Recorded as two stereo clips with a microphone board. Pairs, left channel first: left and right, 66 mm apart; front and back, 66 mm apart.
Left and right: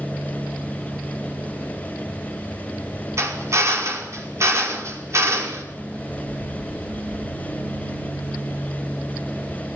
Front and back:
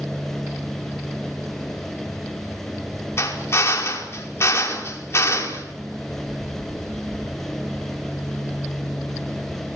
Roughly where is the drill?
Ahead right.